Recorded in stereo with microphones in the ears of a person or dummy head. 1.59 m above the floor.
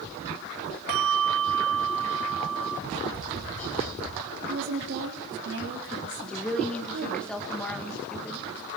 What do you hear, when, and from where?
0.9 s a bell: 60° right (ahead or behind), 2.0 m
2.9 s tapping: 40° left (ahead or behind), 8.5 m
4.5 s a woman speaking: 65° right (ahead or behind), 3.5 m
6.2 s a woman speaking: 5° left (ahead or behind), 2.5 m